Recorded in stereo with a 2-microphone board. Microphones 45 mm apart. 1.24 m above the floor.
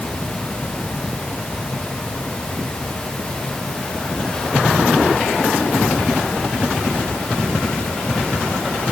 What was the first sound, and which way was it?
Only background noise.